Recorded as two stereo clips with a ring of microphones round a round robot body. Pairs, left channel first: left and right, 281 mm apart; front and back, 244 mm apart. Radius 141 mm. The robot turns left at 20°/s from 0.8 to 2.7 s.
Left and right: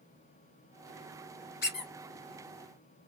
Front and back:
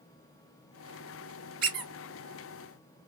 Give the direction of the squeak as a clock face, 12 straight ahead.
7 o'clock.